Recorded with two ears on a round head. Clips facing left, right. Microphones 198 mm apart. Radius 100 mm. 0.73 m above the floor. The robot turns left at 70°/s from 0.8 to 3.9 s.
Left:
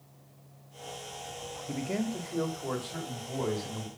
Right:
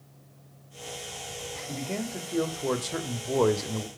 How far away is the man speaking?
About 1.2 m.